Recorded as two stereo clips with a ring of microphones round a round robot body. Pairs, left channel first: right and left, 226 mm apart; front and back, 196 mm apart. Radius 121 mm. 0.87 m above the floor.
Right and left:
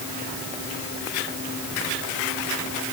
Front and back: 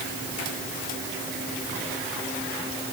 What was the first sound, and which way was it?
Only background noise.